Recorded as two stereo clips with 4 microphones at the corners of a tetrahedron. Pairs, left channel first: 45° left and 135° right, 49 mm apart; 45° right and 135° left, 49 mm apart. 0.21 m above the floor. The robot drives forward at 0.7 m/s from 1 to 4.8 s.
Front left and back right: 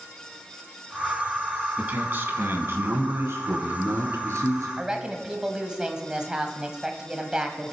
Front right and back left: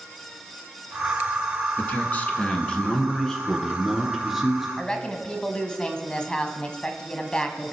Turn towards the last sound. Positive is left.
turn(degrees=-85)